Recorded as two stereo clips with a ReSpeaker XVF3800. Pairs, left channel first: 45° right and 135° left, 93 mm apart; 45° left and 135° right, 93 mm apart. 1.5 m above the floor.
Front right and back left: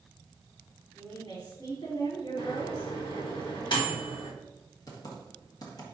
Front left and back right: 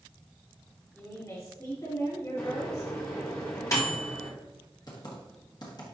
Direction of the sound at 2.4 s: 10° right.